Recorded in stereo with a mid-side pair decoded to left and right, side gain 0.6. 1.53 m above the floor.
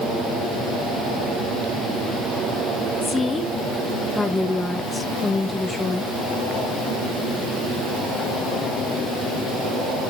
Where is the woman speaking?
15° left, 1.9 m.